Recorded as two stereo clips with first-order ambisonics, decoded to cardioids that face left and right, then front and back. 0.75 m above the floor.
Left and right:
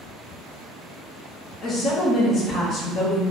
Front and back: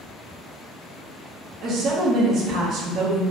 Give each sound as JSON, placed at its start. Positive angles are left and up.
{"t": 1.6, "sound": "a woman speaking", "azimuth_deg": 140, "distance_m": 0.6}